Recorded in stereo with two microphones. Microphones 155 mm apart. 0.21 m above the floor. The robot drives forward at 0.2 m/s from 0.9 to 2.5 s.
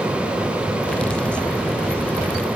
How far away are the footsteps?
No footsteps in this recording.